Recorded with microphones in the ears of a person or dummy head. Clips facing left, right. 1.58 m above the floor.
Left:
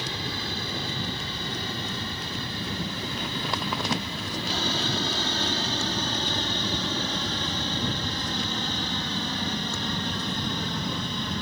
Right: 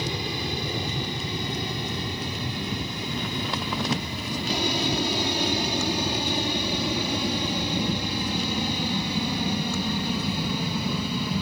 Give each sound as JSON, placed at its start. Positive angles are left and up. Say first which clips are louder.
{"t": 0.0, "sound": "an aircraft", "louder": "right 4 dB", "side_deg": -15}